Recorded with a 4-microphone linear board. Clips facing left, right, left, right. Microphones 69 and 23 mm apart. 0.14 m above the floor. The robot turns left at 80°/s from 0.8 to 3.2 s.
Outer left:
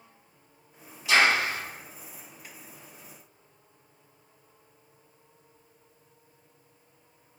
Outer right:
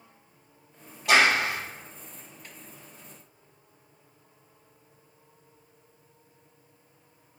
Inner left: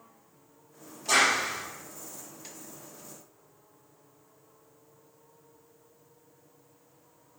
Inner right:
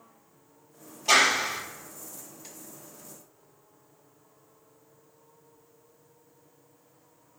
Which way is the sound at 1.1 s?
75° right.